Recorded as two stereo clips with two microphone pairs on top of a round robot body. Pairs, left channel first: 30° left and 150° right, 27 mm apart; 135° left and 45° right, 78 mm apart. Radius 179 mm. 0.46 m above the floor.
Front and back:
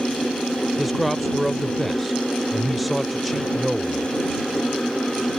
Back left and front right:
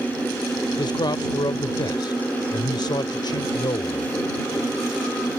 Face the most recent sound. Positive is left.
turn(degrees=125)